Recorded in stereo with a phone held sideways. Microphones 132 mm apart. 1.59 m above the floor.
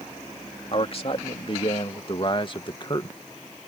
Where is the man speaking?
45° left (ahead or behind); by 3.1 s 35° left (ahead or behind).